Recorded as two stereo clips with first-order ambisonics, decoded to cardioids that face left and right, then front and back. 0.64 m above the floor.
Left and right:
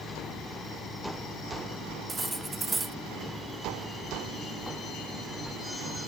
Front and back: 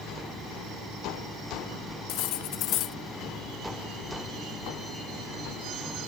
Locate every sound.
2.1 s cutlery clinking: 10° right